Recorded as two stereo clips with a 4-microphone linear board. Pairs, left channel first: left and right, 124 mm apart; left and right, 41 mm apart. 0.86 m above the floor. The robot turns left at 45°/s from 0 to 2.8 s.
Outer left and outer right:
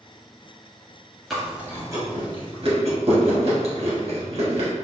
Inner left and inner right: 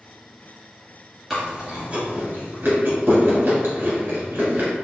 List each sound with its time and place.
1.3 s chewing: centre (ahead or behind), 1.8 m; by 4.7 s 60° right (ahead or behind), 1.8 m